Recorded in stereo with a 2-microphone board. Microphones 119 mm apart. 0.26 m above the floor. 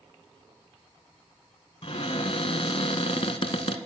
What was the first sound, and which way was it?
A cupboard door, 55° left (ahead or behind).